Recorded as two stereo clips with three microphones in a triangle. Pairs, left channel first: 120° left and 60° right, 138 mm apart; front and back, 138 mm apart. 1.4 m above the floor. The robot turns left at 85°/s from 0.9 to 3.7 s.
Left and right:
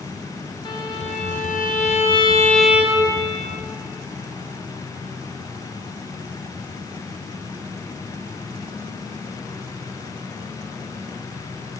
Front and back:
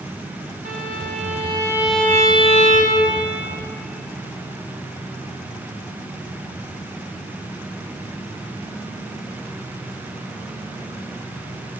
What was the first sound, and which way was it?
A violin, 175° left.